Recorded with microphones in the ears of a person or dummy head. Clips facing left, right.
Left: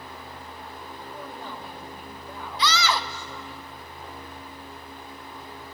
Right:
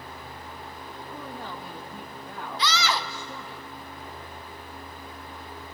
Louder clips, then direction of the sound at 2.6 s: Left 2 dB; 70° left (ahead or behind).